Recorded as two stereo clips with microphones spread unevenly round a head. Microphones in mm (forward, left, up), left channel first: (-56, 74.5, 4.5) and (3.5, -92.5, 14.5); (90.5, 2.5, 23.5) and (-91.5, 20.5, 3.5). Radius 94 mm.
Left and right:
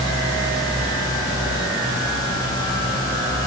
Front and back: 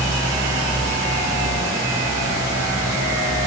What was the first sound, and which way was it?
Only background noise.